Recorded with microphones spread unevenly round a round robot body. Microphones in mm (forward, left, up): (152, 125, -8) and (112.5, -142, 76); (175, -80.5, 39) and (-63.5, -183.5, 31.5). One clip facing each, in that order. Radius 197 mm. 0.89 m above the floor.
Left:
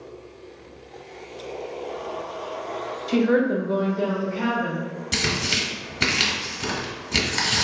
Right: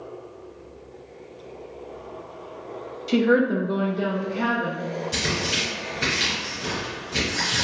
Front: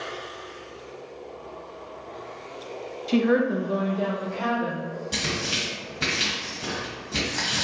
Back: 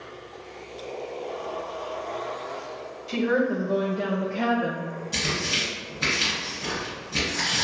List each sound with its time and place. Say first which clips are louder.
3.1 s a woman speaking: even, front 3 dB; 10° right, 0.8 m; by 4.9 s 165° left, 1.2 m
5.1 s tearing paper: even, even; 65° left, 1.4 m